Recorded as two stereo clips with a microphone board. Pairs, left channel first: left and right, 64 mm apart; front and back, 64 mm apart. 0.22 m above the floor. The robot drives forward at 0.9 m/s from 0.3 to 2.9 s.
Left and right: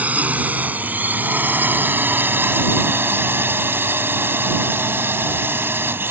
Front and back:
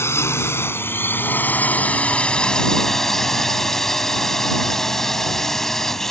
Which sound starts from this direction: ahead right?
A drone, at 0.0 s.